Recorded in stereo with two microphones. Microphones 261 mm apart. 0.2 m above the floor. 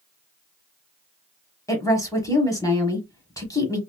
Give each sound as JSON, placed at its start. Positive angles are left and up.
{"t": 1.7, "sound": "a woman speaking", "side_deg": 10, "distance_m": 1.0}